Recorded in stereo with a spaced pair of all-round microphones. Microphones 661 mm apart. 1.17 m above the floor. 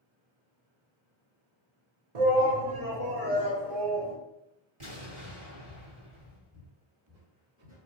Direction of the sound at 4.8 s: 45° right (ahead or behind).